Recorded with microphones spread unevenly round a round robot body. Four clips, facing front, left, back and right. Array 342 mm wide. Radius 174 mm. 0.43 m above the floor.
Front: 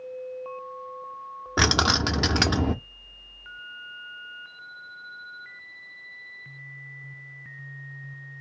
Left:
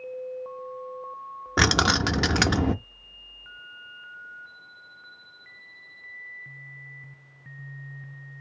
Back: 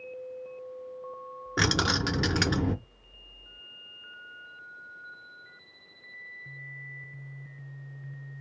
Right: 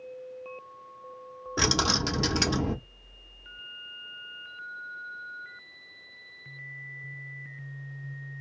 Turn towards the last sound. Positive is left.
turn(degrees=75)